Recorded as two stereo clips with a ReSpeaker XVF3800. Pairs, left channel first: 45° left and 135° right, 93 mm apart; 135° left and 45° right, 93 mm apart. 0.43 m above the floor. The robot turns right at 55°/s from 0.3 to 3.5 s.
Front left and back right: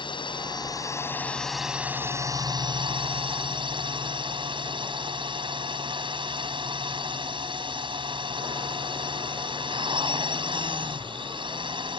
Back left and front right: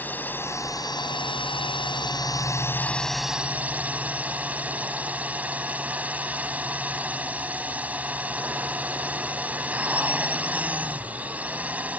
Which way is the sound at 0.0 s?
65° left.